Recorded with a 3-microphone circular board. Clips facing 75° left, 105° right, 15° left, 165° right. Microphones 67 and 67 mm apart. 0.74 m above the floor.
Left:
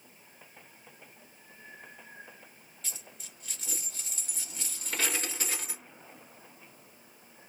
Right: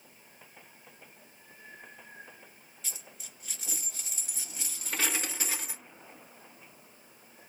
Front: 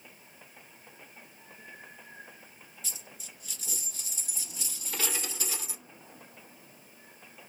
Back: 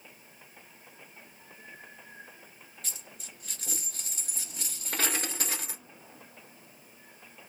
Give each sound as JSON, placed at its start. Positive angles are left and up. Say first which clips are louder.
{"t": 2.8, "sound": "a dropped coin", "louder": "even, even", "azimuth_deg": 170, "distance_m": 1.6}